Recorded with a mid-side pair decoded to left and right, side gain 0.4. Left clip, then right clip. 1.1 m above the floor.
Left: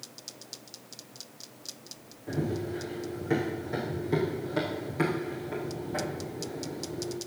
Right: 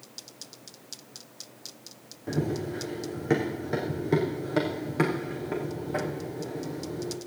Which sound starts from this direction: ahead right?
Running footsteps, at 2.3 s.